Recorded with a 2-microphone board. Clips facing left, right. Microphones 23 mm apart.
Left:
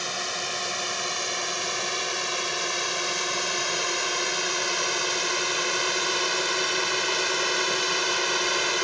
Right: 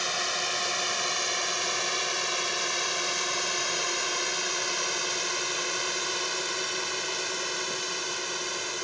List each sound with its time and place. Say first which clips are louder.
0.0 s a drone: right 1 dB; 5° right (ahead or behind); by 8.8 s 35° left (ahead or behind)